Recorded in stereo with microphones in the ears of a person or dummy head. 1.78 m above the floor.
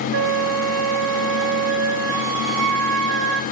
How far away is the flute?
About 1.1 m.